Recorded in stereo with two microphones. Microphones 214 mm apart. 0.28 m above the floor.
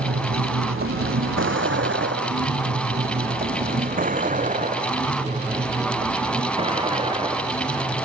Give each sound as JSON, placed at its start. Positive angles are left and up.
{"t": 0.0, "sound": "a vehicle", "side_deg": -85}